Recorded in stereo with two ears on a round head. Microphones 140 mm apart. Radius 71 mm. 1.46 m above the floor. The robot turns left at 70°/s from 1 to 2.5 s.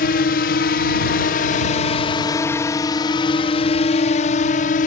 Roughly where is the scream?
No scream in this recording.